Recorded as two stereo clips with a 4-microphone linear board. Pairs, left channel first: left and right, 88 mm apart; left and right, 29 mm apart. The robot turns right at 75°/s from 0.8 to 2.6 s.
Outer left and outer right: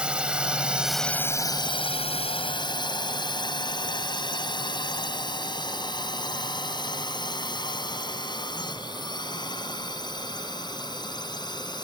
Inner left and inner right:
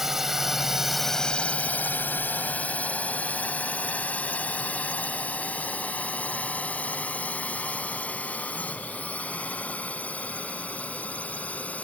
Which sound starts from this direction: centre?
A drone, at 0.0 s.